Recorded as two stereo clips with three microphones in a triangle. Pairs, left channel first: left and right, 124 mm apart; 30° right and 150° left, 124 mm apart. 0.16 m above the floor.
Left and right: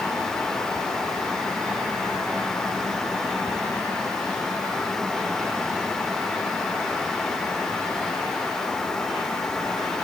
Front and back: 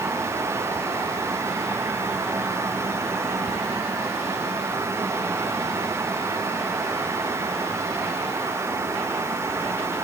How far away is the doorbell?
No doorbell in this recording.